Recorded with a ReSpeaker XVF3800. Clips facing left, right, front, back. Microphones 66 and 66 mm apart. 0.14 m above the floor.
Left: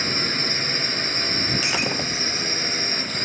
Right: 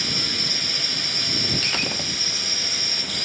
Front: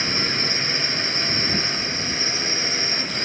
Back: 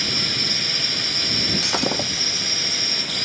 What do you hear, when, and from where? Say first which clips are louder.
0.0 s a drone: left 4 dB, front 3 dB; 50° left
1.6 s breaking glass: left 3 dB, back 4 dB; 170° left